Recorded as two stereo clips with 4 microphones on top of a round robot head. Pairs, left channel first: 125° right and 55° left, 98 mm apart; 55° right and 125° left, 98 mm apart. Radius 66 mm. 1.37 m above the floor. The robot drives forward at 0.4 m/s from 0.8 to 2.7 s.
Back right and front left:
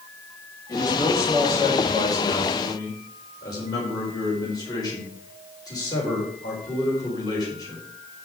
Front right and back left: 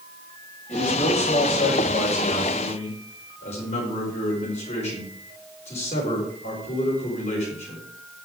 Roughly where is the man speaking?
Ahead right.